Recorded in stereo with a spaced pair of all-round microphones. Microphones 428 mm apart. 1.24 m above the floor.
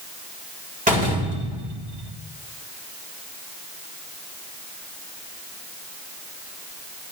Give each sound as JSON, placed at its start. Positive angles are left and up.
{"t": 0.9, "sound": "a door slam", "side_deg": -15, "distance_m": 3.0}